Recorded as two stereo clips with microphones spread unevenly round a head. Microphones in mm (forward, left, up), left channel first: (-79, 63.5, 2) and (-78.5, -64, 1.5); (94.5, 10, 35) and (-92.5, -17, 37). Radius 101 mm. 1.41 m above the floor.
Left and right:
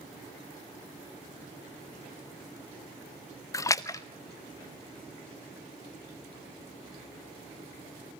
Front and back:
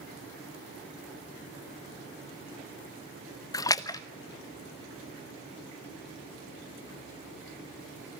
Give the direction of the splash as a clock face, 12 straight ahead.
10 o'clock.